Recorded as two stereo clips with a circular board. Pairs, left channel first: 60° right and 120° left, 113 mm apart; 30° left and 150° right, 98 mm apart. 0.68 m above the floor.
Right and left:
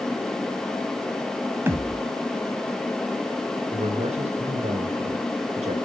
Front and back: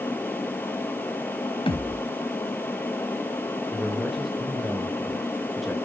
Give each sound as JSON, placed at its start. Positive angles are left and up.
{"t": 1.7, "sound": "a thud", "azimuth_deg": 50, "distance_m": 2.0}
{"t": 3.7, "sound": "a man speaking", "azimuth_deg": 120, "distance_m": 3.5}